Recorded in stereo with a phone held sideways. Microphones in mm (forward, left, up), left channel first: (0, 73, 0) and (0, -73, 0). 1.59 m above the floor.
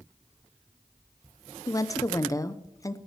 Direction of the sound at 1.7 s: 25° left (ahead or behind).